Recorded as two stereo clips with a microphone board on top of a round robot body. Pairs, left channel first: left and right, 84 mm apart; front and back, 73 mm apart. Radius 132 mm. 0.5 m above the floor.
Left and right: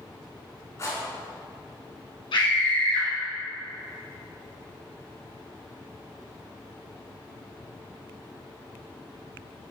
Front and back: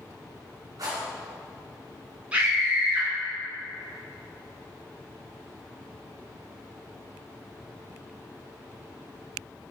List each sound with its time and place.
0.8 s a rattle: 140° left, 5.5 m
2.3 s a scream: 110° left, 5 m